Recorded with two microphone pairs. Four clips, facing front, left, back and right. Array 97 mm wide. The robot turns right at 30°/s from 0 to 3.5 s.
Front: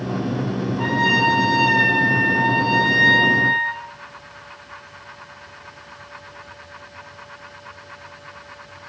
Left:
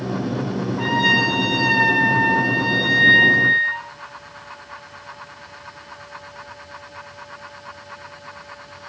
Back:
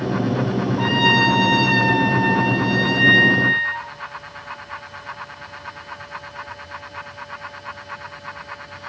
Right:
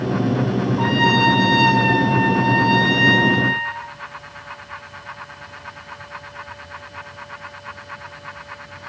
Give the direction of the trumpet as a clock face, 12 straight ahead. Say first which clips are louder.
Right 1 dB, back 1 dB; 5 o'clock.